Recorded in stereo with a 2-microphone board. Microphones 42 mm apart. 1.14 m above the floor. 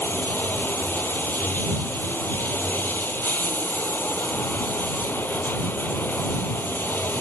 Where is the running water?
55° left (ahead or behind).